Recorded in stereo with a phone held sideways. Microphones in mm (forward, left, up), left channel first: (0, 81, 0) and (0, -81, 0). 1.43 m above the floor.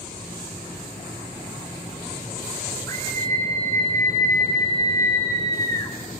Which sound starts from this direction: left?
A scream, at 2.9 s.